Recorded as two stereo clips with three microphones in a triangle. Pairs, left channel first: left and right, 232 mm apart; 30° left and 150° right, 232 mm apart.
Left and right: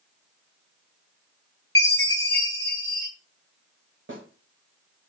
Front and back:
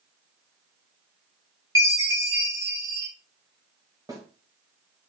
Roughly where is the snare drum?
Right.